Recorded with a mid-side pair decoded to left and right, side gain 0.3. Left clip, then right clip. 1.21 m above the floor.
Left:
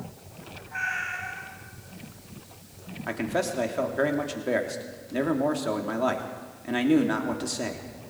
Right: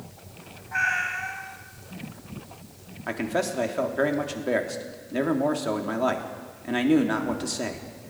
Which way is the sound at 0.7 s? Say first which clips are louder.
Right 5 dB; 60° right.